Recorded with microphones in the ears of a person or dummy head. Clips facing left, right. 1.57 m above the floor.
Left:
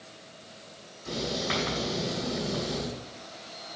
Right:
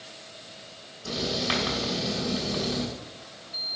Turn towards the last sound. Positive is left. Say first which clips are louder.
# right 2 dB
turn(degrees=-55)  # may be behind; listen again after turning